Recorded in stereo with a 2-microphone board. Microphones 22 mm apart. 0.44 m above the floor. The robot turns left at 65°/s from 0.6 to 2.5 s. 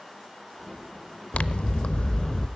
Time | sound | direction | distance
1.3 | scissors | 90° left | 0.5 m